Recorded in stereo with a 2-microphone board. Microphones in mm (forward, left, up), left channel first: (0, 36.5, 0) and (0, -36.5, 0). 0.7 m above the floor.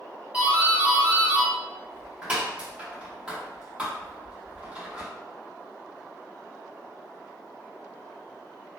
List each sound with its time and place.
0.3 s a doorbell: 15° right (ahead or behind), 0.9 m